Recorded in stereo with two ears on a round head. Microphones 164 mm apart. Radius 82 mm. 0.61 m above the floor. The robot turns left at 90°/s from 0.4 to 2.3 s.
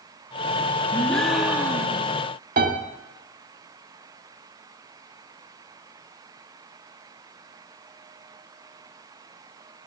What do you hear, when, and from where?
0.9 s a gasp: 10° left (ahead or behind), 1.1 m; by 2.1 s 20° right (ahead or behind), 1.1 m
2.6 s a piano: 50° right (ahead or behind), 1.8 m